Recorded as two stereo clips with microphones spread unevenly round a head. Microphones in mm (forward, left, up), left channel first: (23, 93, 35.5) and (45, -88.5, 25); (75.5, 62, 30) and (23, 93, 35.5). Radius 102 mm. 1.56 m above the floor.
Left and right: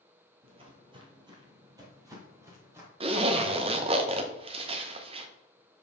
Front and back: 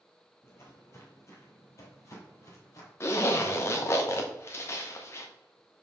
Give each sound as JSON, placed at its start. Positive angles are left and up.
{"t": 0.4, "sound": "footsteps", "azimuth_deg": -50, "distance_m": 1.7}
{"t": 3.0, "sound": "a zipper", "azimuth_deg": -45, "distance_m": 0.7}